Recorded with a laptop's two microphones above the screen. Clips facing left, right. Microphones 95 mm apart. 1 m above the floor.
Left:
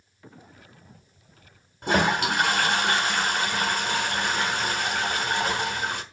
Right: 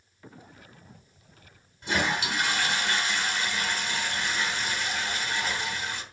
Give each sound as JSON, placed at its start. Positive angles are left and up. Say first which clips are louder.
{"t": 1.8, "sound": "a toilet flushing", "louder": "left 6 dB", "side_deg": 55, "distance_m": 1.1}